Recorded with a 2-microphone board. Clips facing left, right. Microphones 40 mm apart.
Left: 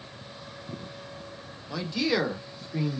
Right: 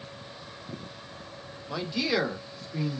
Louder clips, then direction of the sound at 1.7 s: Left 1 dB; 10° right (ahead or behind).